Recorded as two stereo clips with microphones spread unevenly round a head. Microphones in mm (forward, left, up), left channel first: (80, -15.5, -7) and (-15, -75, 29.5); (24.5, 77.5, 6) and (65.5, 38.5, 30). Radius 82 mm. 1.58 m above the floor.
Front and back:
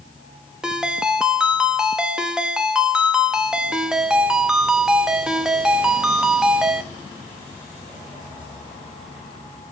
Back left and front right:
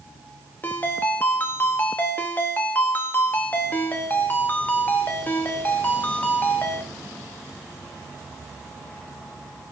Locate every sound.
0.6 s a ringtone: 135° right, 1.0 m